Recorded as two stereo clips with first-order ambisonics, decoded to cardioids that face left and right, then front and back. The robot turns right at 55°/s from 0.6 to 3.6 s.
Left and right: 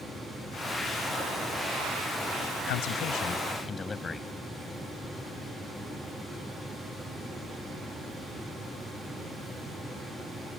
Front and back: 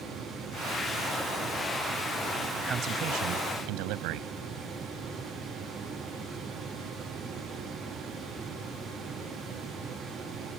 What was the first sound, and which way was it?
A man speaking, 110° left.